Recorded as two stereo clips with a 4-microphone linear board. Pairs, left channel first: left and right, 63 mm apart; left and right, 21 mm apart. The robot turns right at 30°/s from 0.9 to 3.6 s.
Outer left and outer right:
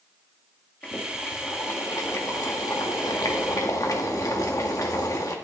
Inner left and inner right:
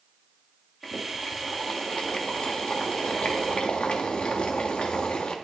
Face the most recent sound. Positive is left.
turn(degrees=110)